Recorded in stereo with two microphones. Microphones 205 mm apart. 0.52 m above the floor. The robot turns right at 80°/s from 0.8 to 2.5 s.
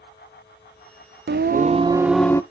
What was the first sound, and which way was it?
Singing, 75° right.